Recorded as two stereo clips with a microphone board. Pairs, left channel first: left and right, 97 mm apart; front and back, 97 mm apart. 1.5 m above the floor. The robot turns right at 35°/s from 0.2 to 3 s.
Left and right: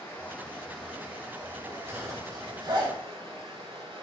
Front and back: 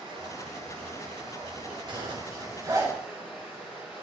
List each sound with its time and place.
0.0 s running water: 165° left, 6 m; by 4.0 s 100° right, 6 m
1.9 s a zipper: 155° right, 3 m; by 2.9 s 115° right, 3 m